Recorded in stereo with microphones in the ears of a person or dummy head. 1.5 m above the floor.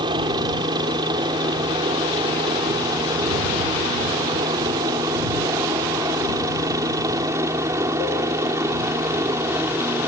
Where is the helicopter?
20° right (ahead or behind); by 10.1 s 10° right (ahead or behind).